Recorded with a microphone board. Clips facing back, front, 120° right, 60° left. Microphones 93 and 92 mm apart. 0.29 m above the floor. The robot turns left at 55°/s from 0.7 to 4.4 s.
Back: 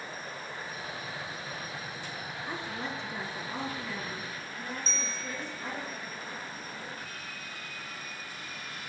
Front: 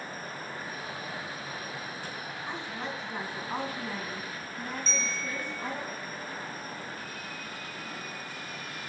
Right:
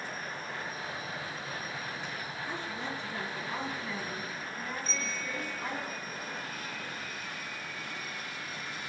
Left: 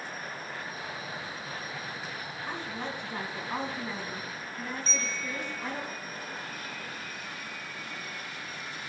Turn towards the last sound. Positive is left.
turn(degrees=-130)